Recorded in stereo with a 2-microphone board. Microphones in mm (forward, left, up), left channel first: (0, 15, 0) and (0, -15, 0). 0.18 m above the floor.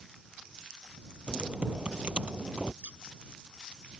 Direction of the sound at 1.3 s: 40° right (ahead or behind).